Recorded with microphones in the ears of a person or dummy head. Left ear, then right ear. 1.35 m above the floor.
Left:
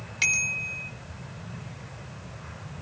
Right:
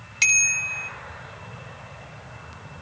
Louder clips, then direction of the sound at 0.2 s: Right 5 dB; 10° right (ahead or behind).